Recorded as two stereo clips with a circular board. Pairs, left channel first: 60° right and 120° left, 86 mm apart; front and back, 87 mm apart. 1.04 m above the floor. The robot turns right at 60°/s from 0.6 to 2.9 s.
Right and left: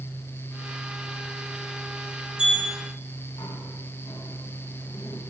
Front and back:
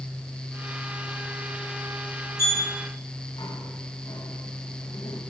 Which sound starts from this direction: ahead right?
A sliding door, at 2.4 s.